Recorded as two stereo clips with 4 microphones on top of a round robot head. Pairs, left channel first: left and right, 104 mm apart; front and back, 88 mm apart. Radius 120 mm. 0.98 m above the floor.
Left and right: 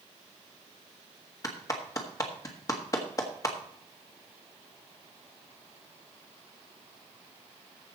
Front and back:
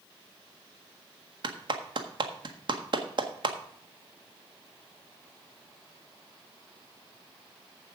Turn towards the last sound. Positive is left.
turn(degrees=150)